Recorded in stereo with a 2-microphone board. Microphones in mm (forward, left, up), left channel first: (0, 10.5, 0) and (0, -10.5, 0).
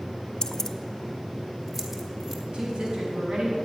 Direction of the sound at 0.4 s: 45° left (ahead or behind).